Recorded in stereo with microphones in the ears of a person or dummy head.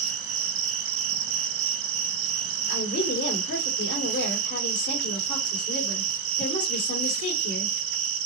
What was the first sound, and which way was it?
An insect, 65° right (ahead or behind).